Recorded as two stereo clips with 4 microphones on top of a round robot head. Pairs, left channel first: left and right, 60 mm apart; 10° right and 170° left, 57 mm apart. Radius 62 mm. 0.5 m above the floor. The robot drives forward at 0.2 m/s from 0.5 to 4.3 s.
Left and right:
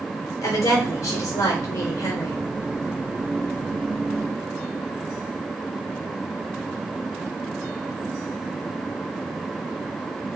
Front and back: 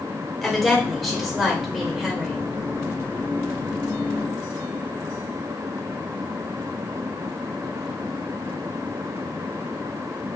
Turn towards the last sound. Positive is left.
turn(degrees=100)